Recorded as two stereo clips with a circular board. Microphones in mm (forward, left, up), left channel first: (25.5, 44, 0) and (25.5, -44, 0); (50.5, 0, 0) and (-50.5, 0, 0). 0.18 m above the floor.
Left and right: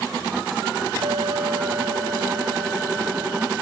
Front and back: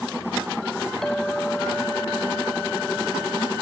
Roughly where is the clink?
Right.